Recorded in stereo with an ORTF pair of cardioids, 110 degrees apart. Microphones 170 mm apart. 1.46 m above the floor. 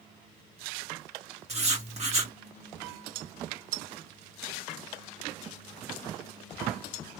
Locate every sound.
1.5 s writing: 40° right, 2 m